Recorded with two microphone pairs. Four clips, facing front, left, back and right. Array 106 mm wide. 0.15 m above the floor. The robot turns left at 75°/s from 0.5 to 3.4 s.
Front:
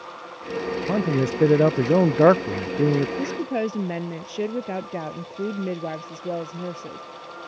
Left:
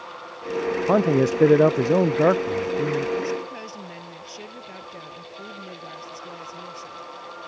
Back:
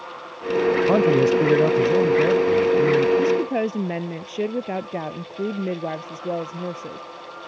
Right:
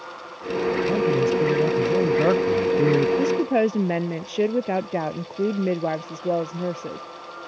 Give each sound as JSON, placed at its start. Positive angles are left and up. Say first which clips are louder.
{"t": 0.9, "sound": "a man speaking", "louder": "left 4 dB, back 5 dB", "azimuth_deg": 125}
{"t": 3.2, "sound": "a woman speaking", "louder": "right 9 dB, back 6 dB", "azimuth_deg": -80}